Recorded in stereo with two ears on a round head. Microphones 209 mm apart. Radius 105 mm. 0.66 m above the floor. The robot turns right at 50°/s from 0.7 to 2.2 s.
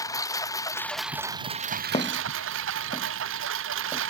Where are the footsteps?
25° left (ahead or behind); by 4.0 s centre (ahead or behind).